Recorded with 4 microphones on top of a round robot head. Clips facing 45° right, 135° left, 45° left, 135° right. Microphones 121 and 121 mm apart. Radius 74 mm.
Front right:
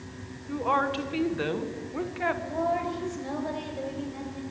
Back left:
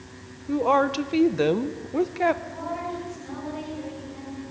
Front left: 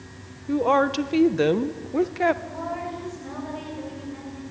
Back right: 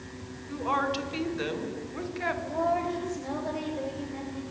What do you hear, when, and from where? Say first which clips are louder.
0.5 s a woman speaking: back left 6 dB, front left 9 dB; 80° left, 1.2 m
2.4 s a woman speaking: front right 4 dB, back right 4 dB; 75° right, 7 m